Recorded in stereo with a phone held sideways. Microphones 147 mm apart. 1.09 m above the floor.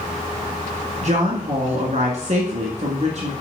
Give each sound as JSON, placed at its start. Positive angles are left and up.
{"t": 1.0, "sound": "a woman speaking", "side_deg": -60, "distance_m": 1.7}